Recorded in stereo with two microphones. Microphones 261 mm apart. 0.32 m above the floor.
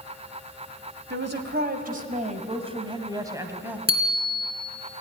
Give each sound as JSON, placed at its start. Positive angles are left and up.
{"t": 1.1, "sound": "a woman speaking", "side_deg": -45, "distance_m": 2.0}
{"t": 3.9, "sound": "a bicycle bell", "side_deg": 35, "distance_m": 2.5}